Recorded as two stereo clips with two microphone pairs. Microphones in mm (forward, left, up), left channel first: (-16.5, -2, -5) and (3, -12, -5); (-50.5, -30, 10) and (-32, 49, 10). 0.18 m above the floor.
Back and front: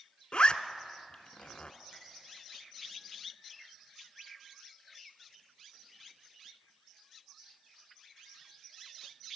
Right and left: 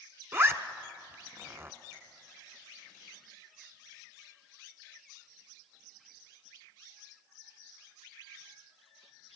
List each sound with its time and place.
0.3 s a zipper: 130° left, 1.0 m
1.9 s a finger snap: 20° left, 8.5 m